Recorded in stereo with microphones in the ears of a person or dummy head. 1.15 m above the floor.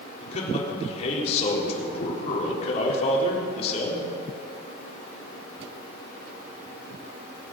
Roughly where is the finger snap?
I don't hear a finger snap.